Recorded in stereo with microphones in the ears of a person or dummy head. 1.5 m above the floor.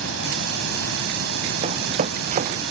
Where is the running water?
80° right.